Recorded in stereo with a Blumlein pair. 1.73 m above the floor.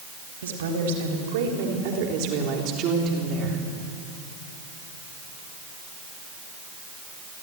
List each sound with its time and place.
0.4 s a woman speaking: 60° right, 4 m; by 3.6 s 25° right, 3.5 m